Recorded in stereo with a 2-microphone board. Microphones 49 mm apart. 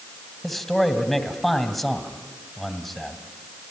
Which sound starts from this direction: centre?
A man speaking, at 0.4 s.